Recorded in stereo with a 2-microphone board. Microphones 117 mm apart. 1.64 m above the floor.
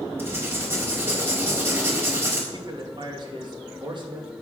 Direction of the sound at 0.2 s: 20° right (ahead or behind).